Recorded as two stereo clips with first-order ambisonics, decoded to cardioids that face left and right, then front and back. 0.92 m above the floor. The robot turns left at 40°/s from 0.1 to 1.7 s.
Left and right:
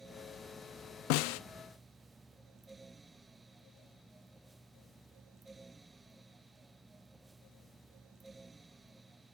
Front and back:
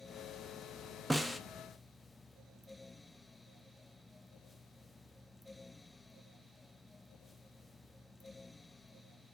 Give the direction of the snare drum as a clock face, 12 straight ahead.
9 o'clock.